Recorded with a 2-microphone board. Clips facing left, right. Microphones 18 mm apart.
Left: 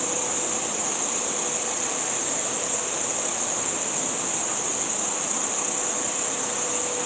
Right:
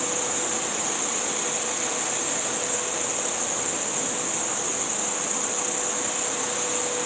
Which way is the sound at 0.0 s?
5° left (ahead or behind).